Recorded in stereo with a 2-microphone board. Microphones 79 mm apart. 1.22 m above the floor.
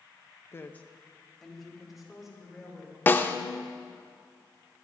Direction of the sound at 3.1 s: 25° left (ahead or behind).